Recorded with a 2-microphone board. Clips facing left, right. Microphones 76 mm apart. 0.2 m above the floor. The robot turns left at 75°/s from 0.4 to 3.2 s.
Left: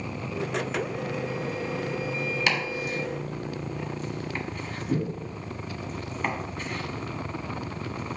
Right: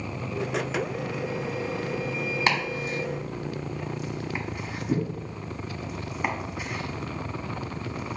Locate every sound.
2.5 s chopping: 40° right (ahead or behind), 1.4 m; by 8.2 s 10° right (ahead or behind), 1.4 m